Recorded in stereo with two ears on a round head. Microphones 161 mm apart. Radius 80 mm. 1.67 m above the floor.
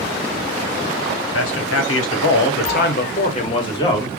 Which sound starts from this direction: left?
A man speaking, at 1.3 s.